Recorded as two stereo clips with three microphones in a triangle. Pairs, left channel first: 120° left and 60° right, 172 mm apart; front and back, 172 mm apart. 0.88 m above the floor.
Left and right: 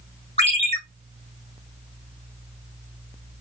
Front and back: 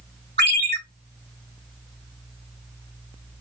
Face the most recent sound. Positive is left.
turn(degrees=175)